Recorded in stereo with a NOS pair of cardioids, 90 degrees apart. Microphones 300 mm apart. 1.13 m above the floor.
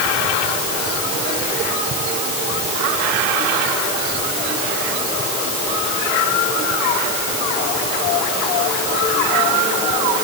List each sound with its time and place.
Only background noise.